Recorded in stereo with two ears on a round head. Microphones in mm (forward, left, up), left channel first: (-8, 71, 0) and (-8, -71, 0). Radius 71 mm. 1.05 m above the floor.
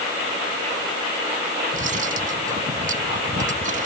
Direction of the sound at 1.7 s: 55° right (ahead or behind).